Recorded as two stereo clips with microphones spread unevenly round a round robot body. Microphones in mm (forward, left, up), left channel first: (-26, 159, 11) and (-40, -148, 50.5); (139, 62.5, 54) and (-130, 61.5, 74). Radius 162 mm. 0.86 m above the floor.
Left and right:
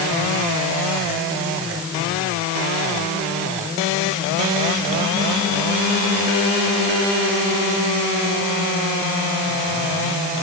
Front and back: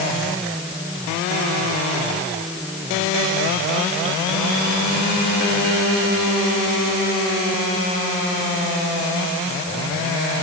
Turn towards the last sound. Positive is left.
No sound to turn to.